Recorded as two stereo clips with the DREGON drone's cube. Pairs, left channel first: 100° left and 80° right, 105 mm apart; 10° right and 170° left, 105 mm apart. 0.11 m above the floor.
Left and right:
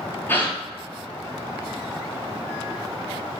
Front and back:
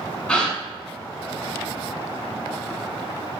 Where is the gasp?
60° left, 1.0 m.